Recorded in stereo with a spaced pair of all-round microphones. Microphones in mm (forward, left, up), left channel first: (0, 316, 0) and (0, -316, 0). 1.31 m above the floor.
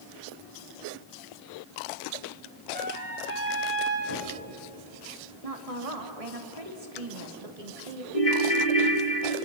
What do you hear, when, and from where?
2.7 s a trumpet: 85° right, 4.5 m
4.1 s knocking: 70° left (ahead or behind), 7.5 m
5.4 s a woman speaking: 70° right (ahead or behind), 3 m
8.1 s a ringtone: 65° left (ahead or behind), 1.8 m